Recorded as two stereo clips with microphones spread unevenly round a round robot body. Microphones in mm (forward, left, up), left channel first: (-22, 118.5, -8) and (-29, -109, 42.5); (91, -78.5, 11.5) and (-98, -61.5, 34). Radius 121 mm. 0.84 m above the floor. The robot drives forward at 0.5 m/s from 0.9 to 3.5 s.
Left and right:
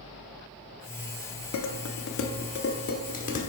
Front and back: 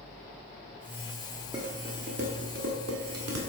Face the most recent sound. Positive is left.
turn(degrees=150)